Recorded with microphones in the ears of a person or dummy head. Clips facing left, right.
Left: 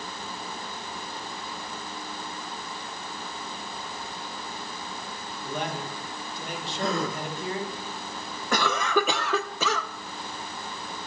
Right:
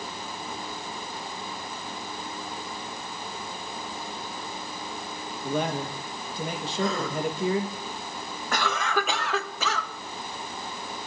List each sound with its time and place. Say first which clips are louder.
5.4 s a man speaking: right 5 dB; 60° right (ahead or behind), 1.6 m
6.8 s a gasp: right 1 dB; 55° left (ahead or behind), 5.5 m
8.5 s a cough: left 3 dB; 70° left (ahead or behind), 1.4 m